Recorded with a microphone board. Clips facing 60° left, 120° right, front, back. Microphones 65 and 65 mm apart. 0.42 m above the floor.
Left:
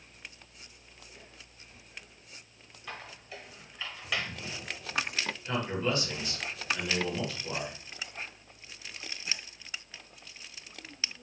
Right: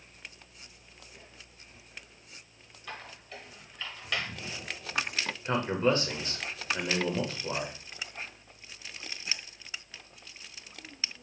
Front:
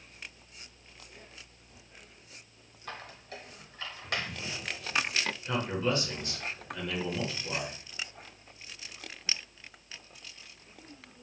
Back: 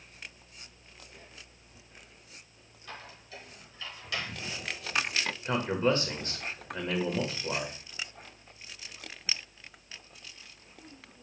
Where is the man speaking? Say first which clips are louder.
Right 5 dB, back 4 dB; 150° right, 1.2 m.